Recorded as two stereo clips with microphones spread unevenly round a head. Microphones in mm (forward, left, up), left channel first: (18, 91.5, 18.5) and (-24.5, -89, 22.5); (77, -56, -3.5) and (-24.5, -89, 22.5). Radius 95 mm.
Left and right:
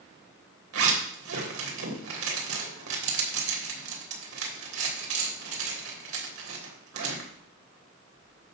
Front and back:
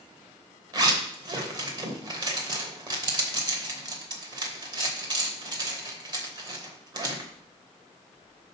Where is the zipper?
115° right, 3 m.